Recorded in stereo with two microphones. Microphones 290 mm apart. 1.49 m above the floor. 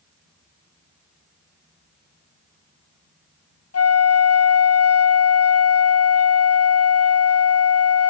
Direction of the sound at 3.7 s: 55° left (ahead or behind).